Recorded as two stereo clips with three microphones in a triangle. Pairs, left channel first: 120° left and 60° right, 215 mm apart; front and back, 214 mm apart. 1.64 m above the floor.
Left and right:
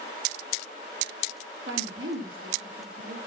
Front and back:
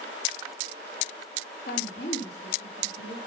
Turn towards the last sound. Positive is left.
turn(degrees=-40)